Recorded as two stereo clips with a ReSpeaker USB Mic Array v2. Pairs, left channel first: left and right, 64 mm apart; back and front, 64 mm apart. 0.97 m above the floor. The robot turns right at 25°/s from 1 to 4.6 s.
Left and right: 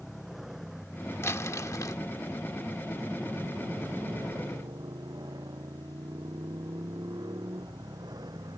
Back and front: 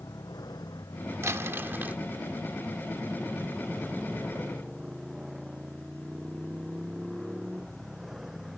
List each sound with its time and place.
0.0 s a motorcycle: 175° right; by 8.6 s 85° right
1.2 s crumpling: 45° left; by 2.0 s 65° left